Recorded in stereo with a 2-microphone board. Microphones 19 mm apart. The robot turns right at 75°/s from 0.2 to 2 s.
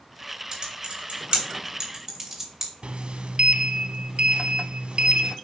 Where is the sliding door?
65° right (ahead or behind), 0.8 m.